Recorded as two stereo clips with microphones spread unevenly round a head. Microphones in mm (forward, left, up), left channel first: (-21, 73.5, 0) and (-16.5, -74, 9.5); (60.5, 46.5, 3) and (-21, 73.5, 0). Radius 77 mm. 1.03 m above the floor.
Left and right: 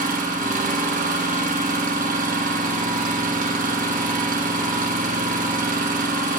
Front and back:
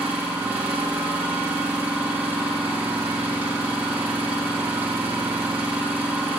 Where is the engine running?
120° right, 1.5 m.